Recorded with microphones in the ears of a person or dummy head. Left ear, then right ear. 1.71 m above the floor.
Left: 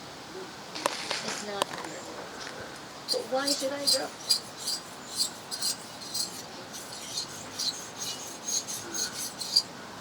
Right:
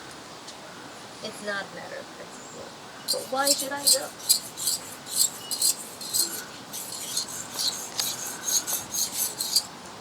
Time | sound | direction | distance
1.2 | a woman speaking | 60° right (ahead or behind) | 1.6 m
3.1 | scissors | 35° right (ahead or behind) | 1.0 m